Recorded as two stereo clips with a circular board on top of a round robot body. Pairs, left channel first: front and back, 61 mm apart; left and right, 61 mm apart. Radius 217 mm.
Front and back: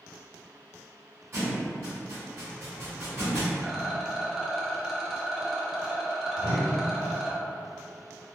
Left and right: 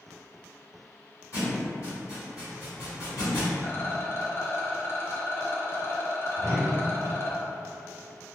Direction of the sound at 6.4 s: 15° left.